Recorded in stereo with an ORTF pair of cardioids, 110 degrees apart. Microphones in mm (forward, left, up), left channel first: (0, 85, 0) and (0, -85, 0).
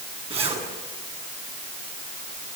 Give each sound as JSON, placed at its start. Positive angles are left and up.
{"t": 0.3, "sound": "a zipper", "azimuth_deg": -35, "distance_m": 8.0}